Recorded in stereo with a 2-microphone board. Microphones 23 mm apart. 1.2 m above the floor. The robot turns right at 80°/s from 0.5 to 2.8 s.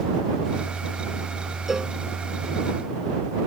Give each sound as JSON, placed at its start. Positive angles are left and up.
{"t": 1.7, "sound": "a cowbell", "side_deg": -10}